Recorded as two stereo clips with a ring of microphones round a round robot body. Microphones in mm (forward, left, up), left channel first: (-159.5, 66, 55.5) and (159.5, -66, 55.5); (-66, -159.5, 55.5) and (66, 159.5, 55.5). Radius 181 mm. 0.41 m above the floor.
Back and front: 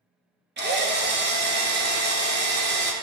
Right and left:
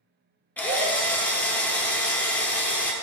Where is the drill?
30° right, 1.4 m.